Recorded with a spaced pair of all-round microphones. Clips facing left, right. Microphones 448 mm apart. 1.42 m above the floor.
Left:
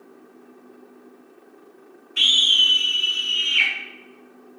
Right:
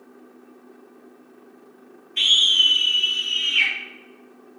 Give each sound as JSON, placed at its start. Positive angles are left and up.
{"t": 2.2, "sound": "a scream", "side_deg": 25, "distance_m": 0.6}